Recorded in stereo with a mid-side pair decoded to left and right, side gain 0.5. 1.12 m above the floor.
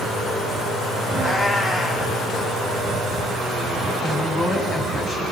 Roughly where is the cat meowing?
Ahead left.